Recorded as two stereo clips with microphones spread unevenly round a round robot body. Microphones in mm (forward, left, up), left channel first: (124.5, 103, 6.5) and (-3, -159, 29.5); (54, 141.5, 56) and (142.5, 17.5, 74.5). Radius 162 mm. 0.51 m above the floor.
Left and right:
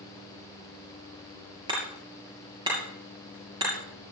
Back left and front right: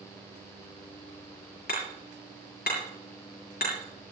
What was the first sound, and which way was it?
Hammering, 165° left.